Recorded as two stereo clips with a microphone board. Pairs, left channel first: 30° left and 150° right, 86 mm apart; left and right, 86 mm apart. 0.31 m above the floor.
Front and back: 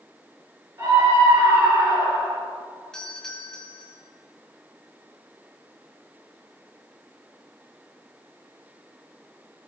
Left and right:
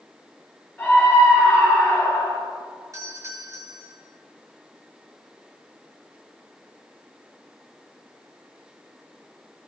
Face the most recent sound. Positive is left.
turn(degrees=-50)